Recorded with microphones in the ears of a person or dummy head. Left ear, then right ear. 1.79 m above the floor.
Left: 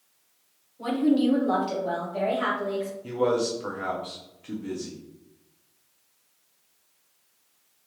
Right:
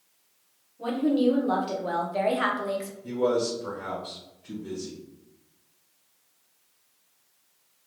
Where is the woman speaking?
15° left (ahead or behind), 1.0 m; by 2.9 s 55° right (ahead or behind), 0.7 m.